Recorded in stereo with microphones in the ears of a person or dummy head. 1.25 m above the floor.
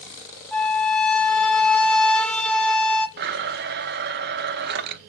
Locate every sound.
0.5 s a flute: 5° left (ahead or behind), 0.6 m
3.2 s a blender: 50° right (ahead or behind), 0.6 m